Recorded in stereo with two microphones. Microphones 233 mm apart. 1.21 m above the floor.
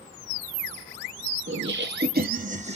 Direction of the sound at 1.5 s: 55° right (ahead or behind).